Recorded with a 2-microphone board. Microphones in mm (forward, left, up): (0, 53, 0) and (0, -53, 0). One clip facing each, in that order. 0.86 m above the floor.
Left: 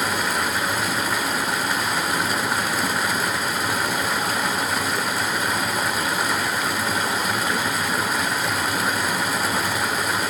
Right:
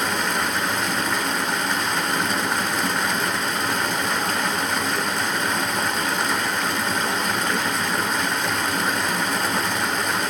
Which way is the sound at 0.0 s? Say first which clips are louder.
Even; 5° left (ahead or behind).